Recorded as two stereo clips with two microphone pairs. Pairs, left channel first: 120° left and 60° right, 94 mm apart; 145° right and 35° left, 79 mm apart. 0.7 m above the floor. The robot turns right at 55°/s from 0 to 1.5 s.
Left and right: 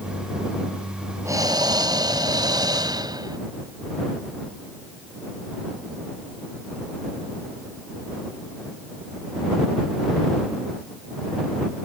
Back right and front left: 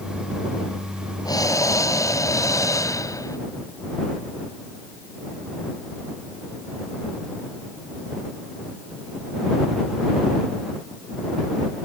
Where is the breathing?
115° right; by 3.4 s 100° right.